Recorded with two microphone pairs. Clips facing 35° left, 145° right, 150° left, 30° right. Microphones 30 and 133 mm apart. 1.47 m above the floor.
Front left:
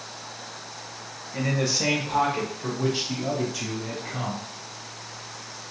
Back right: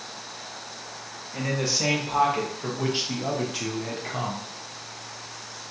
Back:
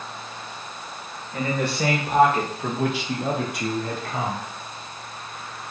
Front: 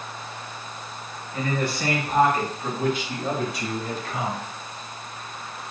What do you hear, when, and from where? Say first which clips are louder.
1.3 s a man speaking: front left 1 dB, back 1 dB; 130° left, 1.6 m; by 4.5 s 160° right, 1.3 m